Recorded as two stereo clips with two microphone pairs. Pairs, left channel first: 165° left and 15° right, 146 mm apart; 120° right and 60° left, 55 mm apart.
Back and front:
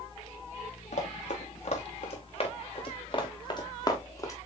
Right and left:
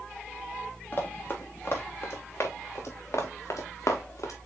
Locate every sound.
0.9 s running footsteps: 170° right, 3 m; by 4.3 s 125° right, 2.5 m